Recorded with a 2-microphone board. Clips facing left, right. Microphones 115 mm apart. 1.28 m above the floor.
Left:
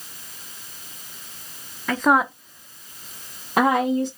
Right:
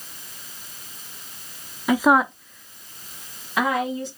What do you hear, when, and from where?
1.9 s a woman speaking: 15° right (ahead or behind), 0.5 m; by 4.1 s 50° left (ahead or behind), 1.2 m